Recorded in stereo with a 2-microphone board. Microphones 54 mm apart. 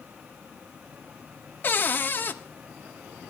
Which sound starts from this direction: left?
A cupboard door, at 1.6 s.